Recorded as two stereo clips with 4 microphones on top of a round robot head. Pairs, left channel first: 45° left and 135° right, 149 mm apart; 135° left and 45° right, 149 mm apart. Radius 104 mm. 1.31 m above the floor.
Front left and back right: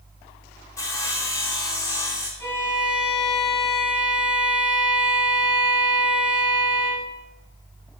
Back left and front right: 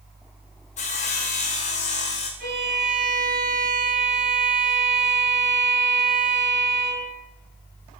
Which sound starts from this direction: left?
Sawing, at 0.8 s.